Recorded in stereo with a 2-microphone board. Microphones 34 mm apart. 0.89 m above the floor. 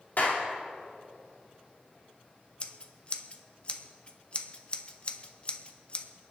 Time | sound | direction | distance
0.2 | a clap | 45° left (ahead or behind) | 2 m
2.6 | scissors | 35° left (ahead or behind) | 0.8 m